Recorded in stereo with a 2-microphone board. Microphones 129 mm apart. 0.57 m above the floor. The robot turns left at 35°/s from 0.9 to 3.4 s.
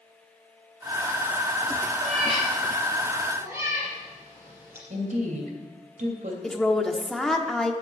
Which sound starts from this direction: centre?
A woman speaking, at 6.4 s.